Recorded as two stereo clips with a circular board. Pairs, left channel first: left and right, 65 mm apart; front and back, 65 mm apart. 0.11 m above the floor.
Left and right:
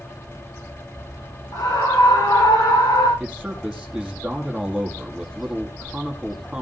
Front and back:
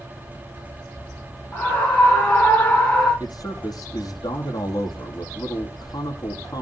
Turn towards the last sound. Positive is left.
turn(degrees=-5)